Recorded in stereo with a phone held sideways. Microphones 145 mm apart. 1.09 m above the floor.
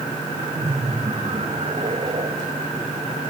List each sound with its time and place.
0.6 s laughter: 45° right (ahead or behind)